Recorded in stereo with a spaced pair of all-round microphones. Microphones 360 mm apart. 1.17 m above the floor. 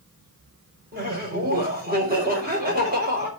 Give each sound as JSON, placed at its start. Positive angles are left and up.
{"t": 0.9, "sound": "laughter", "side_deg": -25, "distance_m": 4.5}